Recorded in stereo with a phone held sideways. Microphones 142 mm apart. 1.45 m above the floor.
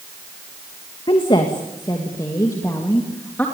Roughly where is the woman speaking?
Left.